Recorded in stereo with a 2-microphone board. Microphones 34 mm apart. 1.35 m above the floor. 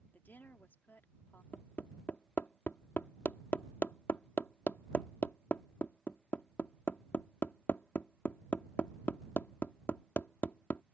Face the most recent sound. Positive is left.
turn(degrees=60)  # may be behind; listen again after turning